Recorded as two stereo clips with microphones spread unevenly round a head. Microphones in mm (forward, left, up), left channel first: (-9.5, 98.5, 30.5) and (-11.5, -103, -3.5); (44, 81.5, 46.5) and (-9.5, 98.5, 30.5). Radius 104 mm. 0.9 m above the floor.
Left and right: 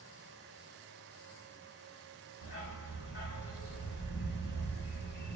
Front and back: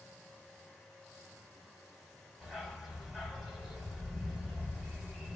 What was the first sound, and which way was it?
A dog barking, 65° left.